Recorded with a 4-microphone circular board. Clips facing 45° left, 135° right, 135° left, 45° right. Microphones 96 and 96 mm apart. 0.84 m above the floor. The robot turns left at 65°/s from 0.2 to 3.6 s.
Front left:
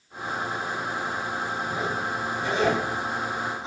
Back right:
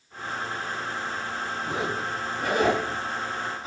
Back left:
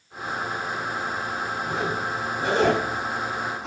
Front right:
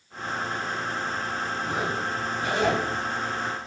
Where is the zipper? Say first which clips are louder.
Front left 1 dB, back left 2 dB; 120° right, 7 m; by 3.7 s 110° left, 7 m.